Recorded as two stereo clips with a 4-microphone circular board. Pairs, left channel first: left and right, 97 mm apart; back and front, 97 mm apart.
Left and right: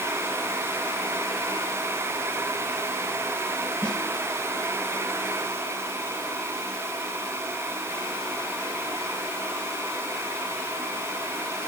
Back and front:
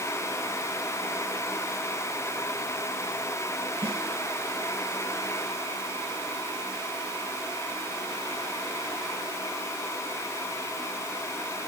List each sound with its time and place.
3.8 s a snare drum: 15° left, 2.5 m